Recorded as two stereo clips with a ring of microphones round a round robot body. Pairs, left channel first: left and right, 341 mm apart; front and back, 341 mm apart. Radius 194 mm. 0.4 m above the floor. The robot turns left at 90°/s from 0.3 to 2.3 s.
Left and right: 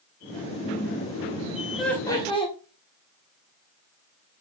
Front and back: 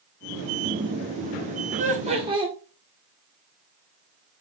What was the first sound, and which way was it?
Laughter, straight behind.